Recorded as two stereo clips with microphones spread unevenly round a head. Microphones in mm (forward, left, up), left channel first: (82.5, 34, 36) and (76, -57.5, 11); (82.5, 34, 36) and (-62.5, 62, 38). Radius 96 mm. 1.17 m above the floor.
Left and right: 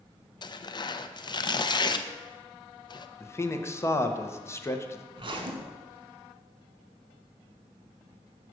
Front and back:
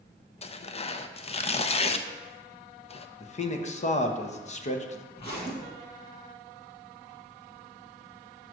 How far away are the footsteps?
No footsteps in this recording.